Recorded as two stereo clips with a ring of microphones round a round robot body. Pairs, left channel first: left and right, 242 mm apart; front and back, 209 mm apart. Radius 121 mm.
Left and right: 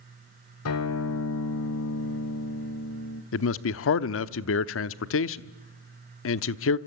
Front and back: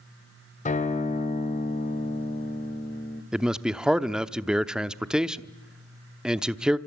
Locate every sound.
0.7 s a guitar: 55° left, 2 m
3.3 s a man speaking: 95° left, 0.9 m